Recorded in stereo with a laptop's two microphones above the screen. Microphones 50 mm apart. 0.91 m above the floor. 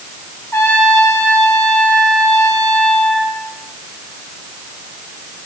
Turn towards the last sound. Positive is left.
turn(degrees=65)  # may be behind; listen again after turning